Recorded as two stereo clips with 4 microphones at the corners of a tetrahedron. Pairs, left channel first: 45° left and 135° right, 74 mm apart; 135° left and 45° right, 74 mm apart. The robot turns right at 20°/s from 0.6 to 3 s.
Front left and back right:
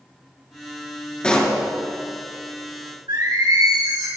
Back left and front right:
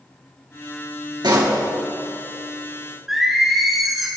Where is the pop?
30° right, 3.5 m; by 1.6 s 25° right, 3.5 m.